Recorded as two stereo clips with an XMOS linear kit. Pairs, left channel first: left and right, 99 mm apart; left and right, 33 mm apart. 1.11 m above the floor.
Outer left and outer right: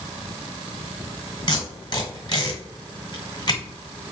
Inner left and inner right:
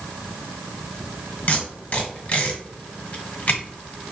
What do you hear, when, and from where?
1.5 s tape being pulled: 50° left (ahead or behind), 1.4 m